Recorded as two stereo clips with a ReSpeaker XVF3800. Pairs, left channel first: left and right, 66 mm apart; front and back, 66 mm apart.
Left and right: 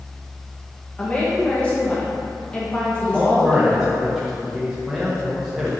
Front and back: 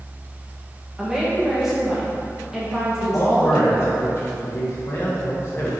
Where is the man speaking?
5° right, 0.7 m.